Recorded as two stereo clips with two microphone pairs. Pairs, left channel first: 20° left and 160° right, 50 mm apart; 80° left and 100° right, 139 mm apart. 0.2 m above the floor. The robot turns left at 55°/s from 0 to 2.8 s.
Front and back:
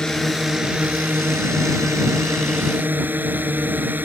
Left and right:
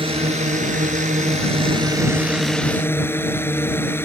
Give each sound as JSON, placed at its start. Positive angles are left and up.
{"t": 0.0, "sound": "a drone", "azimuth_deg": -55}